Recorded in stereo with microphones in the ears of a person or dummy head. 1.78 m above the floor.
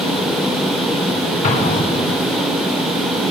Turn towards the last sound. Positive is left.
turn(degrees=40)  # may be behind; listen again after turning